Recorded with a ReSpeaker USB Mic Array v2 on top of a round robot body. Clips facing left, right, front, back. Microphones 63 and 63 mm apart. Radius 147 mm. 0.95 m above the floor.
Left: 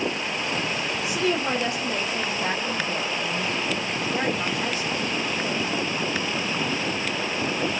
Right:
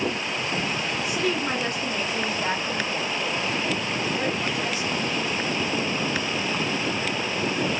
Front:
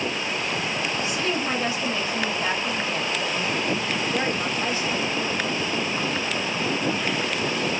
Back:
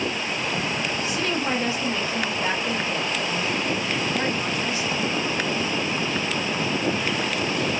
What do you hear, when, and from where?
1.0 s a woman speaking: 120° left, 2 m; by 5.1 s 40° left, 1.2 m